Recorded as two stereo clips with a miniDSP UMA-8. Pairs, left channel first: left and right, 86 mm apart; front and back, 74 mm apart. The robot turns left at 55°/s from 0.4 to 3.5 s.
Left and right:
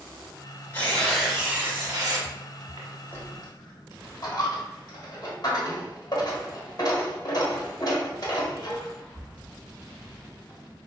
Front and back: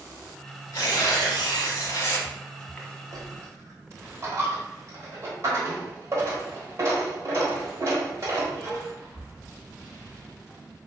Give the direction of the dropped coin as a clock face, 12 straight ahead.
7 o'clock.